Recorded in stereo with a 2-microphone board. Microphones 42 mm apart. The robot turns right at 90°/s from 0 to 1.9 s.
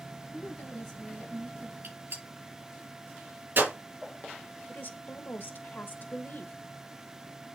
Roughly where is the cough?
No cough in this recording.